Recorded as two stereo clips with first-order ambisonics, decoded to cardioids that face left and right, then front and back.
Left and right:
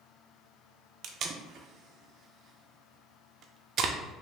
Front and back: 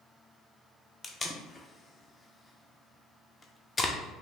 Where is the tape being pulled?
70° right, 0.5 m.